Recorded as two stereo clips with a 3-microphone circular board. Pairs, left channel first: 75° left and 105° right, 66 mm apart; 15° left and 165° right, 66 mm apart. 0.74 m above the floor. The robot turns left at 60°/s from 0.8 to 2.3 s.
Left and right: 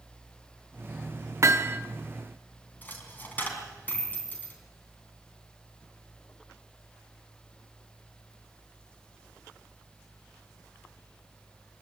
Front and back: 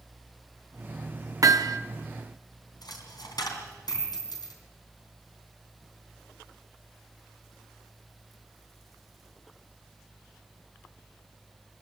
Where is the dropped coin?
10° left, 3.5 m.